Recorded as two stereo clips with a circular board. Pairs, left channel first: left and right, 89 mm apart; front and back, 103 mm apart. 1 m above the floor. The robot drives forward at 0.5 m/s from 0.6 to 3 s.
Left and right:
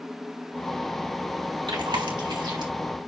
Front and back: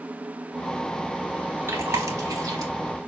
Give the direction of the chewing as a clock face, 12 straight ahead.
4 o'clock.